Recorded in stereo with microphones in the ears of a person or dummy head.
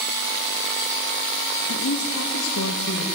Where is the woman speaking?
80° left, 1.2 m; by 3.0 s 90° left, 3 m.